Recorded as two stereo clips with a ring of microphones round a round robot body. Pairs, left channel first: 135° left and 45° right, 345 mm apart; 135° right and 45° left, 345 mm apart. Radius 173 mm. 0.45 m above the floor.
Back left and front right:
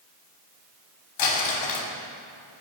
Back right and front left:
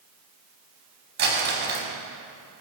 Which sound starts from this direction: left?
Crumpling, at 1.2 s.